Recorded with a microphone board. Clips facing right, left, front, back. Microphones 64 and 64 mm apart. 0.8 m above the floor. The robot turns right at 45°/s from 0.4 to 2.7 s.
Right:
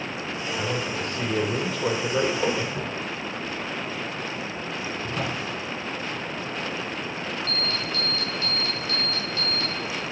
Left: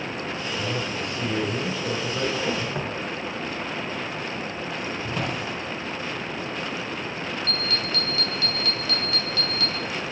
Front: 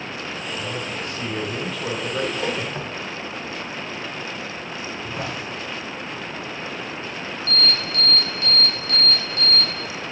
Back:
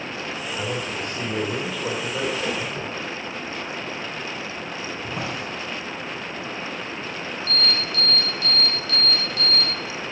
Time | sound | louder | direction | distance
0.6 | a man speaking | right 2 dB, back 3 dB | 145° right | 2.5 m
2.8 | footsteps | left 2 dB, even | 55° left | 2 m
5.0 | a drawer | even, back 1 dB | 120° left | 5 m
7.5 | an alarm | left 1 dB, front 2 dB | 30° right | 3 m